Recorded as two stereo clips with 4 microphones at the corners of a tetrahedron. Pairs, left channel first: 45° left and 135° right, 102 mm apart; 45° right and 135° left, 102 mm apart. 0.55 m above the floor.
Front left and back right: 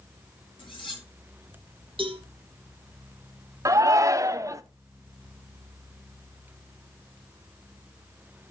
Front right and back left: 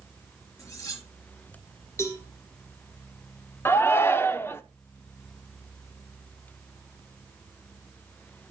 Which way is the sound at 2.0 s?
105° right.